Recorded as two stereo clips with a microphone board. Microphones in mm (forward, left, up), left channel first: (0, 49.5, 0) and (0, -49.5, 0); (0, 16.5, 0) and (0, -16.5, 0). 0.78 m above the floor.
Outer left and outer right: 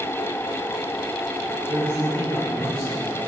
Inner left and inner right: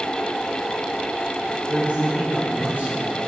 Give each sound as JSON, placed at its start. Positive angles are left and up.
{"t": 1.7, "sound": "a man speaking", "side_deg": -55, "distance_m": 2.5}